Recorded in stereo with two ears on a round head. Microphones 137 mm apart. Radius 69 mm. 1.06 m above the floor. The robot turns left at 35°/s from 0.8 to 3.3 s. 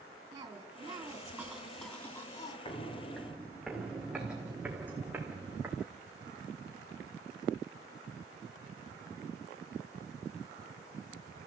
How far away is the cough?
About 3 m.